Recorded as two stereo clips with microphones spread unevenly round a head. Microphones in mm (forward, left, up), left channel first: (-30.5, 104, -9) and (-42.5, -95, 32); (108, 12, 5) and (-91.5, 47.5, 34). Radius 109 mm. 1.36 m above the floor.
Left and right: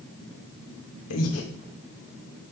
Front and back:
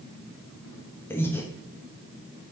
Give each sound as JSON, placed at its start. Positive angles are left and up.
{"t": 1.1, "sound": "breathing", "azimuth_deg": 75, "distance_m": 0.9}